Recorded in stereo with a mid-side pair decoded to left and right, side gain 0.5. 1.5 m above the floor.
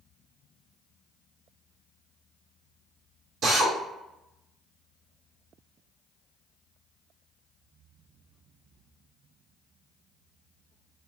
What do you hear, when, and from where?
3.4 s a drill: 60° right, 1.0 m